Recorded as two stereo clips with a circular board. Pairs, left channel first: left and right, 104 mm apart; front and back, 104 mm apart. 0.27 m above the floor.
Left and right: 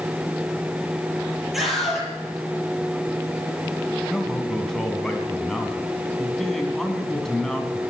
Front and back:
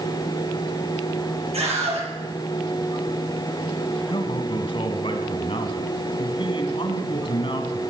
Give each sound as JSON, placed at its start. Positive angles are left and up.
{"t": 1.5, "sound": "a scream", "azimuth_deg": 180, "distance_m": 8.0}
{"t": 4.1, "sound": "a man speaking", "azimuth_deg": 5, "distance_m": 2.5}